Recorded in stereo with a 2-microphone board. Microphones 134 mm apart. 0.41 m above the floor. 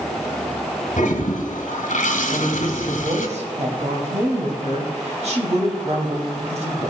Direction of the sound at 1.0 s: 70° left (ahead or behind).